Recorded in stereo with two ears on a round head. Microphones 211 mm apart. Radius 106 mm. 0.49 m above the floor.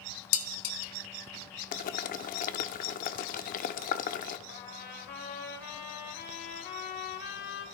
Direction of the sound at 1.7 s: 35° left (ahead or behind).